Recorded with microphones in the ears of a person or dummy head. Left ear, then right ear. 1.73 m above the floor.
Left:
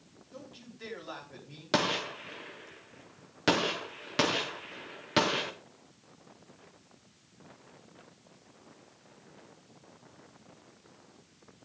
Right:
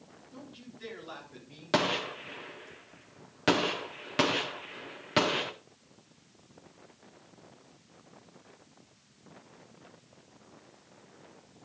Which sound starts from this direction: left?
A man speaking, at 0.3 s.